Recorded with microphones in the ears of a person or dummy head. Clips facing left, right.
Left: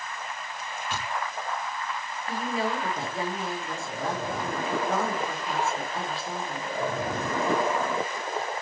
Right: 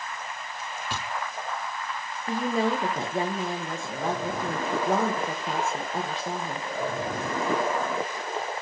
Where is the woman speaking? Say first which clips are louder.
Right 4 dB; 35° right (ahead or behind), 1.7 m.